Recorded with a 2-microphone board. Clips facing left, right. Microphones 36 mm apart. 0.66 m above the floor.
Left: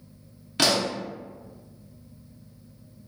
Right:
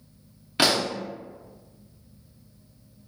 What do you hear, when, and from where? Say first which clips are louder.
0.6 s a pop: right 1 dB; 15° right (ahead or behind), 0.7 m